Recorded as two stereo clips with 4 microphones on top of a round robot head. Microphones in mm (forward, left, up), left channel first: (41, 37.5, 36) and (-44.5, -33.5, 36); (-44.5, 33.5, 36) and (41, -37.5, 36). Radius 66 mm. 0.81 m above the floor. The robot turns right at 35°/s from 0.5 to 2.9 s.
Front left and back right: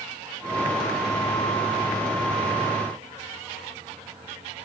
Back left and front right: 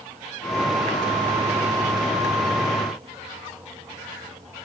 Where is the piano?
No piano in this recording.